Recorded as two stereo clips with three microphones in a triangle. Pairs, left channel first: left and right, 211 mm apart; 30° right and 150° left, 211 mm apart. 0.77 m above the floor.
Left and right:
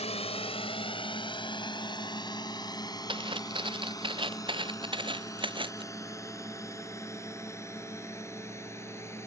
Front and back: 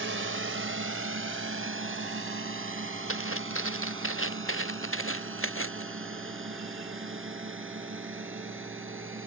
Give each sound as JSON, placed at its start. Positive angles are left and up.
{"t": 0.0, "sound": "a drone", "azimuth_deg": 150}
{"t": 3.1, "sound": "footsteps", "azimuth_deg": -25}